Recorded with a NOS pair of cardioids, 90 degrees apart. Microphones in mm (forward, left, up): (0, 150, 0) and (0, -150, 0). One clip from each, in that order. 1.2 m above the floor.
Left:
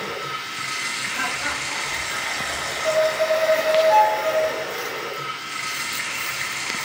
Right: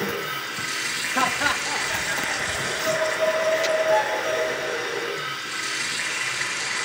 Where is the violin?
40° left, 1.0 m.